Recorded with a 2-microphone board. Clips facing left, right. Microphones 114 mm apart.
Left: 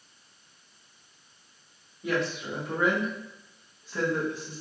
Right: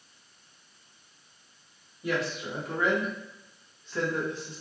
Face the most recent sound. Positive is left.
turn(degrees=15)  # may be behind; listen again after turning